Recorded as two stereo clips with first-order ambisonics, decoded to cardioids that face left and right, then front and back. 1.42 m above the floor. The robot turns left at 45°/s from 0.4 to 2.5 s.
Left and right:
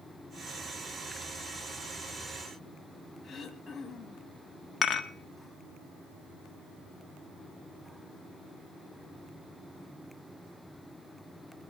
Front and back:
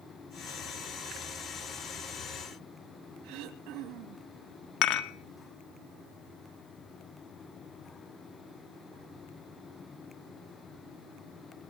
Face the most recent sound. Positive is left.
turn(degrees=25)